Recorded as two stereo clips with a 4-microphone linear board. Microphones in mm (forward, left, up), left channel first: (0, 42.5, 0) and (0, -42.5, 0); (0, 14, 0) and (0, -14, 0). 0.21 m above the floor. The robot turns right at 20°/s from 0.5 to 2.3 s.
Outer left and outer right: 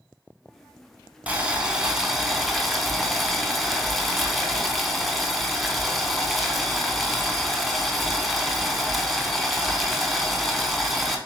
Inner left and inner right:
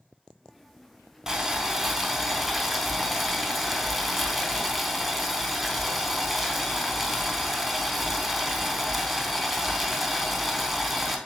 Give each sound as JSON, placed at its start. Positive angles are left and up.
{"t": 1.3, "sound": "boiling", "side_deg": -20, "distance_m": 0.6}